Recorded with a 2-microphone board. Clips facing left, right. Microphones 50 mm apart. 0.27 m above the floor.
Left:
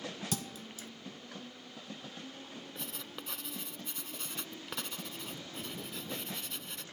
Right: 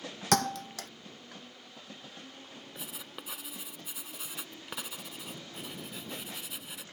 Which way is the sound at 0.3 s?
75° right (ahead or behind).